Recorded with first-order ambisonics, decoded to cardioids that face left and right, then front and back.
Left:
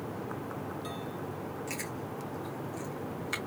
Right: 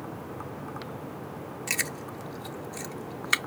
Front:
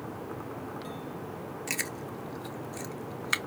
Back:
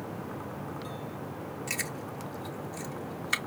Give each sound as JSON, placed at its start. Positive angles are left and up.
{"t": 1.7, "sound": "chewing", "azimuth_deg": -70, "distance_m": 0.5}